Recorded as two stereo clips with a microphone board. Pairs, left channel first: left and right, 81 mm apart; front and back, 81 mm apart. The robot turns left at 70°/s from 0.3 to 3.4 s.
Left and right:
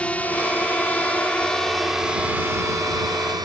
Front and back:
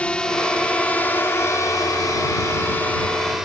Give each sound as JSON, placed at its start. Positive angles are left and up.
{"t": 0.0, "sound": "a drone", "azimuth_deg": 50}